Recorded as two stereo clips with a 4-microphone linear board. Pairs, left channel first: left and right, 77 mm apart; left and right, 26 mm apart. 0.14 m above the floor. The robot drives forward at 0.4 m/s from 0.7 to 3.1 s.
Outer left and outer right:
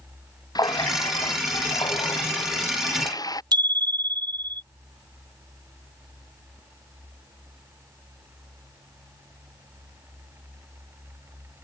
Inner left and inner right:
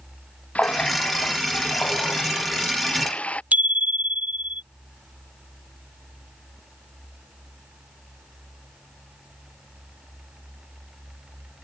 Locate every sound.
0.6 s a running tap: 60° left (ahead or behind)
3.5 s a bicycle bell: 70° right (ahead or behind)